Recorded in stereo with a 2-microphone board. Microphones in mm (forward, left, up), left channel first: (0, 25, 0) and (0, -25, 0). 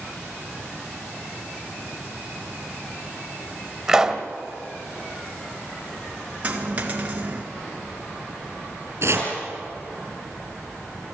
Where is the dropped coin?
30° right (ahead or behind), 2 m.